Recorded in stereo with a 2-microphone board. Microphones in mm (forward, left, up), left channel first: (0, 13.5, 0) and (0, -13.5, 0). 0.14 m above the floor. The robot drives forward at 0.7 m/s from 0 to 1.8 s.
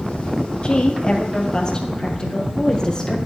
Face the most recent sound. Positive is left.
turn(degrees=25)  # may be behind; listen again after turning